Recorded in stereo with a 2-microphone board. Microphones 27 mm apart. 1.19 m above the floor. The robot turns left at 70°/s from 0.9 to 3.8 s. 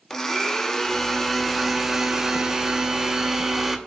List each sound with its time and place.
0.1 s a blender: 15° left (ahead or behind), 0.6 m; by 3.8 s 10° right (ahead or behind), 0.6 m